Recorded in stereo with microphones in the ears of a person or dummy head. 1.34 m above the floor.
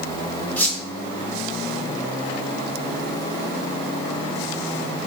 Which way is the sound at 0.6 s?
10° left (ahead or behind).